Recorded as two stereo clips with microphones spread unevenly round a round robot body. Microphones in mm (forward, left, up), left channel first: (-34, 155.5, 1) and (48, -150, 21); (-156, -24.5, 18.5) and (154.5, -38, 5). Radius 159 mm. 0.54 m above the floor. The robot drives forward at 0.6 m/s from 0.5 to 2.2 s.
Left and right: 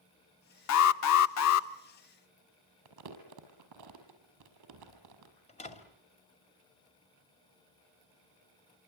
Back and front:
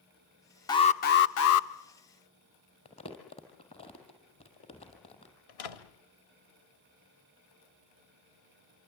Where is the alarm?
100° left, 0.7 m; by 1.7 s 140° left, 1.0 m.